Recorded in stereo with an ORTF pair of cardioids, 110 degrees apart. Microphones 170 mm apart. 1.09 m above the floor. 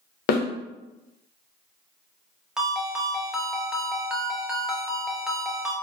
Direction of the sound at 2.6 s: 5° right.